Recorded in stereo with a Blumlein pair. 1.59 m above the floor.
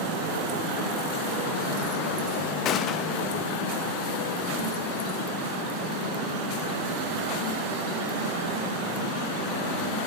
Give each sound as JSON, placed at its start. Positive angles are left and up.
{"t": 2.6, "sound": "a gunshot", "azimuth_deg": 30, "distance_m": 0.6}